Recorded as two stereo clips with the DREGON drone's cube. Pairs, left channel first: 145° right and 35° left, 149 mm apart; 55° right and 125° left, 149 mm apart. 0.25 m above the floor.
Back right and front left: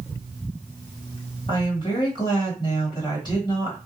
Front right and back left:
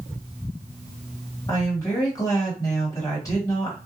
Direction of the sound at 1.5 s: 110° right.